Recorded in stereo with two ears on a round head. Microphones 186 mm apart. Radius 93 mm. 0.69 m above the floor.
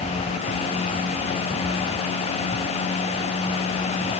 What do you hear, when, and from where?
Only background noise.